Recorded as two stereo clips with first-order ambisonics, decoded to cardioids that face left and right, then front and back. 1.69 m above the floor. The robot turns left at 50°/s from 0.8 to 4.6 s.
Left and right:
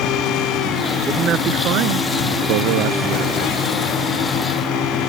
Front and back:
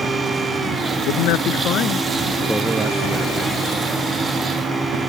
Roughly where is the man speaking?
Ahead.